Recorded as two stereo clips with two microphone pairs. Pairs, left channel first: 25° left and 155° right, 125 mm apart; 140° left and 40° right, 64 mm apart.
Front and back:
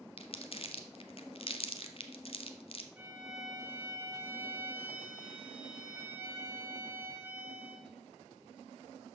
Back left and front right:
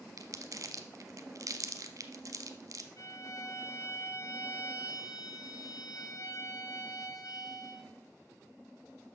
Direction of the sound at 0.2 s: 15° right.